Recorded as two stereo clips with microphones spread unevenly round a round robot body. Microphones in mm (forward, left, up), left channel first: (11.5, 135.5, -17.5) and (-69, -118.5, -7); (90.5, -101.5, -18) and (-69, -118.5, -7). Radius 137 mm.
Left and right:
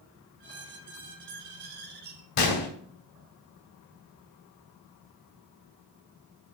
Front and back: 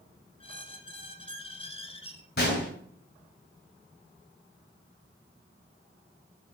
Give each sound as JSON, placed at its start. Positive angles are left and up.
{"t": 0.4, "sound": "a squeak", "azimuth_deg": -55, "distance_m": 1.5}
{"t": 2.4, "sound": "a gunshot", "azimuth_deg": 55, "distance_m": 2.0}